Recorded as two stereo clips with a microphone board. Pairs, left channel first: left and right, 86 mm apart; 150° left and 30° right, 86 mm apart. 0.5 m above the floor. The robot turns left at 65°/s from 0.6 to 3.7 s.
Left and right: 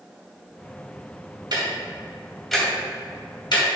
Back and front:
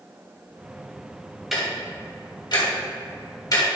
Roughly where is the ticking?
Behind right.